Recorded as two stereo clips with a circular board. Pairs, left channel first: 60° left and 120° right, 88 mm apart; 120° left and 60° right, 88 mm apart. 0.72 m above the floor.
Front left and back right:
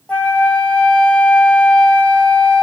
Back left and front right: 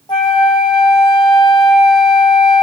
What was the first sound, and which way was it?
A flute, 135° left.